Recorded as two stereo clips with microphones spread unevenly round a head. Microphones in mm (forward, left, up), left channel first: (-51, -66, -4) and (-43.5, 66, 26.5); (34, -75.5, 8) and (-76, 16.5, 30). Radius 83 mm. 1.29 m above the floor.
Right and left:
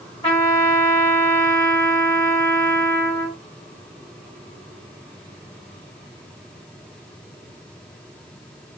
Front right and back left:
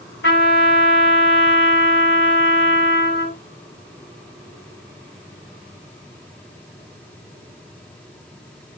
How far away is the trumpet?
About 1.7 m.